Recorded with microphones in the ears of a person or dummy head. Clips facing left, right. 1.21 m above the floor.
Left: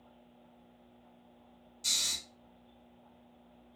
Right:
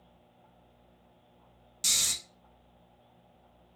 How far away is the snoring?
About 0.7 m.